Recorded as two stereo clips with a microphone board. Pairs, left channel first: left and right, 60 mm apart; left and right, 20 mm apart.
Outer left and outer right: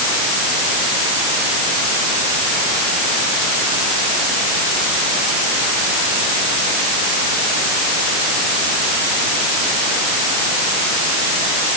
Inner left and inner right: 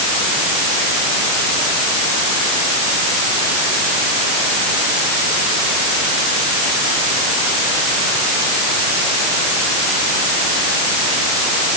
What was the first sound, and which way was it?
Only background noise.